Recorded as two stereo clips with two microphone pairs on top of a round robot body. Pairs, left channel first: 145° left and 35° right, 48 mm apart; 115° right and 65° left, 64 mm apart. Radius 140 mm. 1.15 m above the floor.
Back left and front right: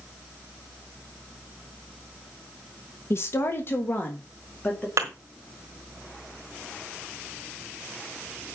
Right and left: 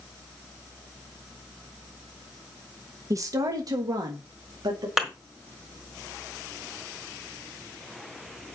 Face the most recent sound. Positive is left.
turn(degrees=-15)